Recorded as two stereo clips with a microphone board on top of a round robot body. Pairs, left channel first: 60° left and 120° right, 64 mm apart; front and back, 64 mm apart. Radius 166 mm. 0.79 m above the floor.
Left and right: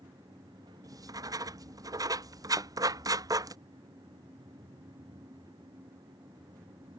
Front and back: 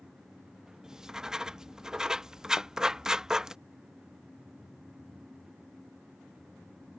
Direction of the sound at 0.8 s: 100° right.